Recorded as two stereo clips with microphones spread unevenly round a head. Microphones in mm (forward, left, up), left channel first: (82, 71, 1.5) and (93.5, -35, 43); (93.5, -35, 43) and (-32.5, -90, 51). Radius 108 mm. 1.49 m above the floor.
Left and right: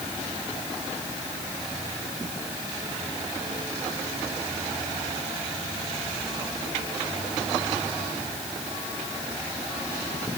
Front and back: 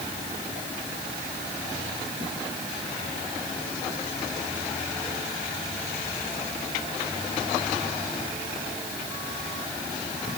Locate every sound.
Only background noise.